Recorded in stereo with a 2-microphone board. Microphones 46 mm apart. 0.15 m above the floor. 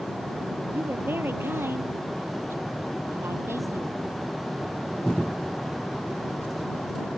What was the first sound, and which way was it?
A woman speaking, 50° right (ahead or behind).